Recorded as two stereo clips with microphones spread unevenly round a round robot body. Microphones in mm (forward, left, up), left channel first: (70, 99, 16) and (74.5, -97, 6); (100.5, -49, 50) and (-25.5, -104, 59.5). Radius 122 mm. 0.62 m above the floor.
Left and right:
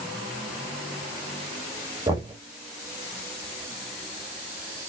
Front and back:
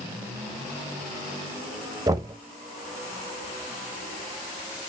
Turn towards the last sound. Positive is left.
turn(degrees=-120)